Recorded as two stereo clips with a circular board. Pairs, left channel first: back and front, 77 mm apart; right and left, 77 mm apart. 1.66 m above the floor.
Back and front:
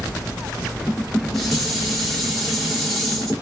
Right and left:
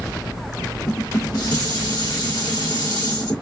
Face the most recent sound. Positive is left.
turn(degrees=-90)